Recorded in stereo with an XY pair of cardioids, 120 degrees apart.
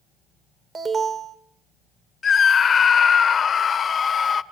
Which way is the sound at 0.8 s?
30° right.